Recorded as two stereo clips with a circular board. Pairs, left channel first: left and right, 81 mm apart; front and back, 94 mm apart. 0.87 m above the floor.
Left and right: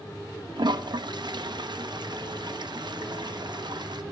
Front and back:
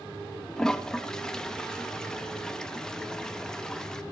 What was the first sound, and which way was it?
A toilet flushing, 85° right.